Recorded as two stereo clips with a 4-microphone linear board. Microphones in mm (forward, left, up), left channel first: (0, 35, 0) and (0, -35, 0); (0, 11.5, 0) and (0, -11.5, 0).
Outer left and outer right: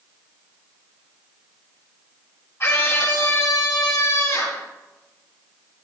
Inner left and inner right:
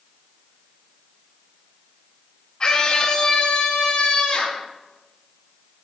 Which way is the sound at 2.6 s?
40° left (ahead or behind).